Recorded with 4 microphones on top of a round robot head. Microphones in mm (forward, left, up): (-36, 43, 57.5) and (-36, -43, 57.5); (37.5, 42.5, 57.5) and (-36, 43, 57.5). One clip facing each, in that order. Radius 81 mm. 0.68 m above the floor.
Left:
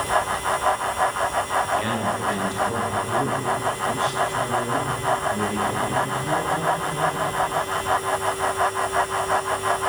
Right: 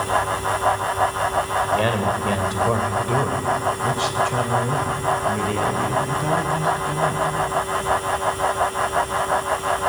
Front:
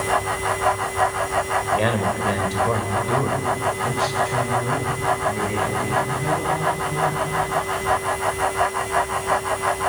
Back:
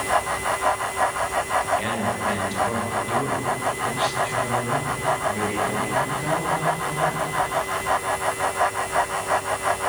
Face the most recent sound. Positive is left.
turn(degrees=-100)